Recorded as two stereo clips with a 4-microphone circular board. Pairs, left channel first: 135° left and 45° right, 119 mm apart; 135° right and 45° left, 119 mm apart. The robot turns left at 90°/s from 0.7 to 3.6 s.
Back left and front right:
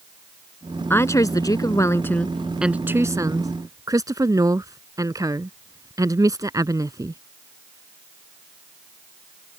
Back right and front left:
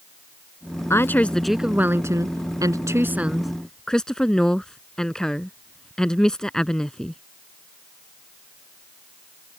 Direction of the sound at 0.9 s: 175° right.